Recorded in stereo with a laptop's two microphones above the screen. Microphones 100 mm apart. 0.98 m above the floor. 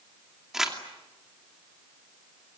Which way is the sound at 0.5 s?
5° right (ahead or behind).